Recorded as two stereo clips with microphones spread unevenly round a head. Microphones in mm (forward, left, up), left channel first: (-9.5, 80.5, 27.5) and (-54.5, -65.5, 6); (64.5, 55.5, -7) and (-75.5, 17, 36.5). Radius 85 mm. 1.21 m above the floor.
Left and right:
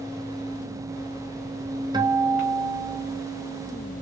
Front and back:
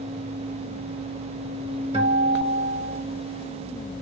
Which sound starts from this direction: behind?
A guitar, at 1.9 s.